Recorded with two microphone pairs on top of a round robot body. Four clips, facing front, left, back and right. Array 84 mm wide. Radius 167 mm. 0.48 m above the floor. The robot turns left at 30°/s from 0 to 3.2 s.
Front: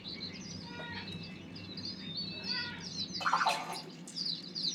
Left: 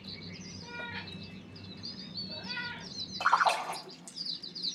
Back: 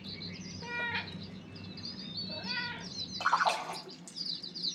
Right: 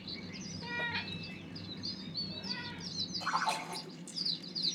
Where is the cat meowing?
150° right, 1.7 m; by 2.9 s 140° left, 1.7 m.